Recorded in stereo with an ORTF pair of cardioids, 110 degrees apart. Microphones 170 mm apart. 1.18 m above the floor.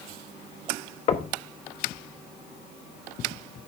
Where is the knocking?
35° left, 1.2 m.